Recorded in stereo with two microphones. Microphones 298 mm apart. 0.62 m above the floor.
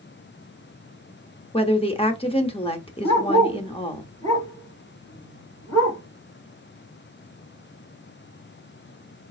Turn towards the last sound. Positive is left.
turn(degrees=10)  # may be behind; listen again after turning